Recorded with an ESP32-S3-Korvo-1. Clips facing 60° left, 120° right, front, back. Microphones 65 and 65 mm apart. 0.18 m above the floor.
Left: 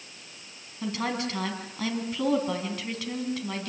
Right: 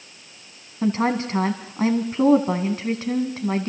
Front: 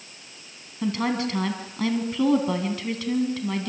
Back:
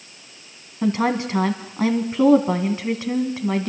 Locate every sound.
0.8 s a woman speaking: 140° right, 1.7 m